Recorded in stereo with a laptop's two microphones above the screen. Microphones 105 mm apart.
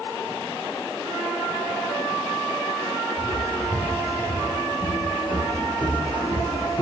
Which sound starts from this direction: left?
Footsteps, at 3.2 s.